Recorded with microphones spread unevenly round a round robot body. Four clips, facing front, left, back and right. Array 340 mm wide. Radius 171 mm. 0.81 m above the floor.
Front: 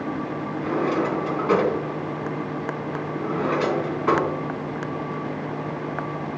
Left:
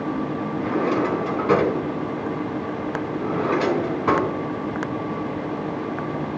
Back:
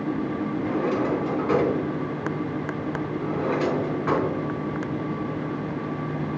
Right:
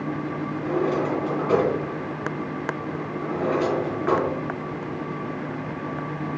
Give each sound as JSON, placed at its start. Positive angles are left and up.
{"t": 0.6, "sound": "a drawer", "azimuth_deg": 75, "distance_m": 4.0}